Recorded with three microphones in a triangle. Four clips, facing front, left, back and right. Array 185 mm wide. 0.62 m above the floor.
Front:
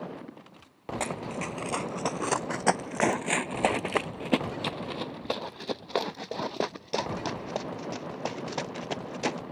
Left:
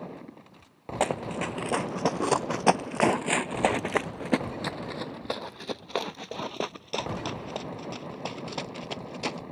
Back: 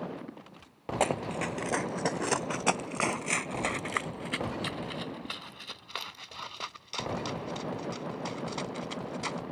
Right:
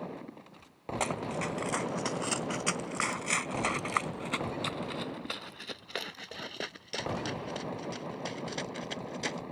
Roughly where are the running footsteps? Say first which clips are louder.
Left 6 dB, back 5 dB; behind left.